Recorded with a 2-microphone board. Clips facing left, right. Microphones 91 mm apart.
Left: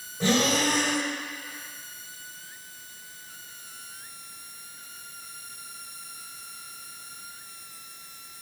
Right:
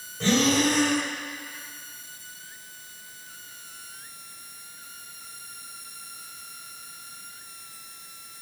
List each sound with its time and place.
0.2 s breathing: 10° left (ahead or behind), 1.9 m